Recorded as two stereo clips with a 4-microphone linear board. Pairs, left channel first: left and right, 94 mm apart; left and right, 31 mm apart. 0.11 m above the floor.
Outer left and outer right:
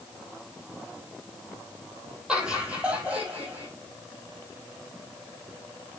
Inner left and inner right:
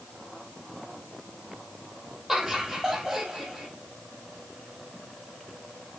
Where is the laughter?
10° right (ahead or behind), 3 m; by 3.7 s 20° right (ahead or behind), 4 m.